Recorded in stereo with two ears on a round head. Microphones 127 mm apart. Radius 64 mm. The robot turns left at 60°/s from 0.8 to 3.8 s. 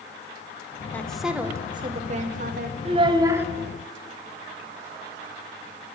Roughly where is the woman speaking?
Ahead.